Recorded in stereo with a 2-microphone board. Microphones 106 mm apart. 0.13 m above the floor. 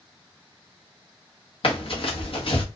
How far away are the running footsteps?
About 1.0 m.